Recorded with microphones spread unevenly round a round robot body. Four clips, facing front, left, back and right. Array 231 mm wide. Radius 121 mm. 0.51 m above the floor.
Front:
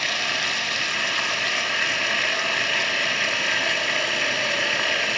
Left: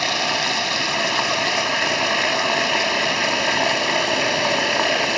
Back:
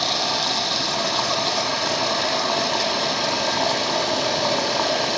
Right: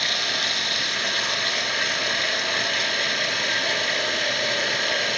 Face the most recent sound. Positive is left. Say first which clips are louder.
# left 7 dB, back 4 dB
turn(degrees=120)